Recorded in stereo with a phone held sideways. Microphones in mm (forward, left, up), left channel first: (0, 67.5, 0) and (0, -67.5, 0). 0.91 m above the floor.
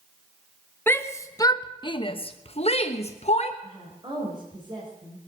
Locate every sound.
0.9 s a shout: 15° left (ahead or behind), 1.2 m; by 3.5 s 50° left (ahead or behind), 1.3 m
3.6 s a woman speaking: 35° right (ahead or behind), 4 m